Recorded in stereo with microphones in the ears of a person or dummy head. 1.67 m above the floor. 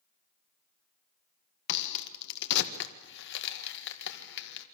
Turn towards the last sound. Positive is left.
turn(degrees=60)  # may be behind; listen again after turning